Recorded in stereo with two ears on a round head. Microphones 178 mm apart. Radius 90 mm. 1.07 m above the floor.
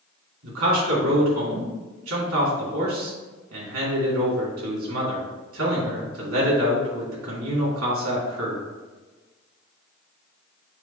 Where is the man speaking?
80° right, 2.5 m.